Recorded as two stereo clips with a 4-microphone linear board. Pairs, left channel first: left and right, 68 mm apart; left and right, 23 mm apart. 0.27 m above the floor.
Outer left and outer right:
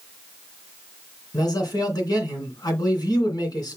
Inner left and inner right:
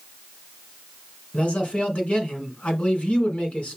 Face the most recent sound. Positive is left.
turn(degrees=65)  # may be behind; listen again after turning